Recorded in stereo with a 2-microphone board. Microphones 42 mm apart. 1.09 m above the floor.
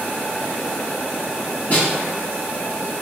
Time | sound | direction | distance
1.7 | a snare drum | 30° left (ahead or behind) | 1.4 m